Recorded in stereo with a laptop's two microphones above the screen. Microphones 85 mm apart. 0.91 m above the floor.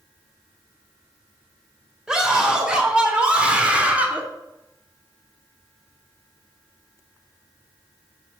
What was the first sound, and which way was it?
A scream, 10° right (ahead or behind).